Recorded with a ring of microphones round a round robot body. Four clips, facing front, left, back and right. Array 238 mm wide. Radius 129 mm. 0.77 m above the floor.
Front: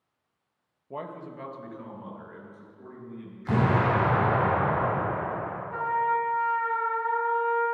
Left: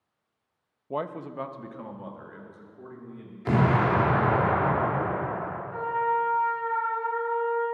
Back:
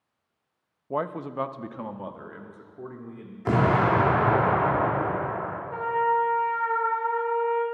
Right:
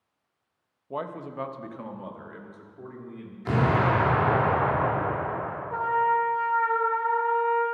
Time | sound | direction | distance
0.9 | a man speaking | 155° left | 0.6 m
3.5 | an explosion | 165° left | 2.5 m
5.7 | a trumpet | 105° right | 3 m